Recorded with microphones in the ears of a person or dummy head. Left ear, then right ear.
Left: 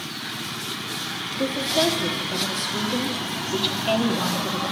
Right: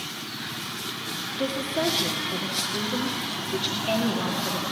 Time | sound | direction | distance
1.4 | a woman speaking | 10° left (ahead or behind) | 2 m